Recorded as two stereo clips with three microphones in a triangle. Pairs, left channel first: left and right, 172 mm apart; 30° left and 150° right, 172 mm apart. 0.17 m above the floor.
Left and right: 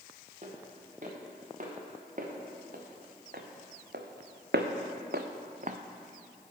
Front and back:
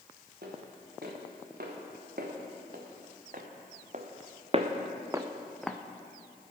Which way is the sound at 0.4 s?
135° right.